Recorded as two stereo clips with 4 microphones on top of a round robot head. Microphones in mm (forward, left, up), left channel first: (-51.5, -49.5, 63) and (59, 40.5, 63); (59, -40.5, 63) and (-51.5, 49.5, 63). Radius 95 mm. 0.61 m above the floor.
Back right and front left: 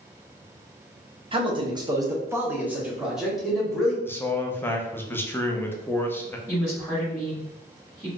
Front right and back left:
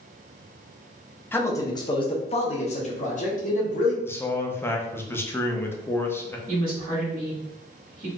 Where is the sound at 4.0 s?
90° right, 0.6 m.